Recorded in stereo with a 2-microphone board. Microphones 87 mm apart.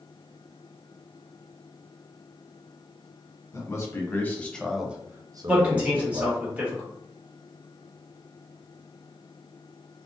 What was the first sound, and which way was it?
A man speaking, 35° left (ahead or behind).